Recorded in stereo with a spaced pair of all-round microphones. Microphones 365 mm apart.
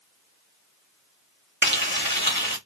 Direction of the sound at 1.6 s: 30° right (ahead or behind).